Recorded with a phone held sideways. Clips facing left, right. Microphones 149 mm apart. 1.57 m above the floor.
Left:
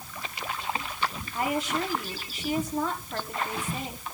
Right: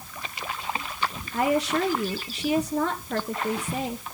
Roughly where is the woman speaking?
Right.